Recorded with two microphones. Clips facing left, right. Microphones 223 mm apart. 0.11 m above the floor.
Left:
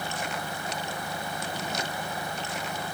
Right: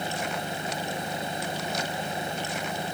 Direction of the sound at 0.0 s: 20° right (ahead or behind).